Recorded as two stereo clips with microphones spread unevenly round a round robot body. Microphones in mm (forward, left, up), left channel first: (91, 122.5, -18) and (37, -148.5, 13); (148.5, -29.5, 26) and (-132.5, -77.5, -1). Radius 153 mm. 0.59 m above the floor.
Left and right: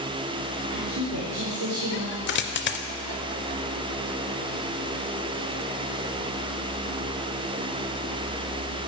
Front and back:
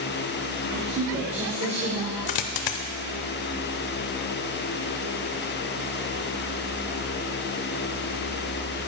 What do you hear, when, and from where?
0.7 s a woman speaking: 150° right, 1.7 m; by 2.2 s 130° right, 2.5 m
2.3 s a dropped coin: 25° left, 0.6 m